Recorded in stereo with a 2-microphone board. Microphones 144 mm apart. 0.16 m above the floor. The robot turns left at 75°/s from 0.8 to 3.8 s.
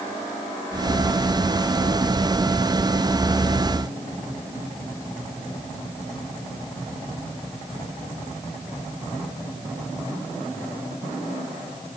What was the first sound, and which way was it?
Only background noise.